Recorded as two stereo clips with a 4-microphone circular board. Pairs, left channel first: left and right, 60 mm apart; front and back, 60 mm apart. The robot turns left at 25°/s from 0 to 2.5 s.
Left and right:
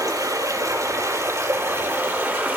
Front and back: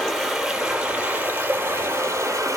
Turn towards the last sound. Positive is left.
turn(degrees=-145)